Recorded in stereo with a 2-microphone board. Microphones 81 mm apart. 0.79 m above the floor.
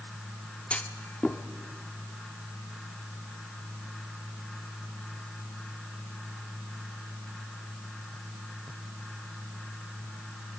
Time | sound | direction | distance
0.7 | a clunk | 15° left (ahead or behind) | 1.1 m